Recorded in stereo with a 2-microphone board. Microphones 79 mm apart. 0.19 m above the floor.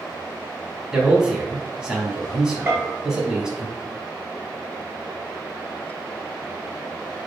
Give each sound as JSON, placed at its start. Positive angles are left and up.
{"t": 0.9, "sound": "a man speaking", "side_deg": -10, "distance_m": 1.1}
{"t": 2.7, "sound": "a bell", "side_deg": -30, "distance_m": 1.2}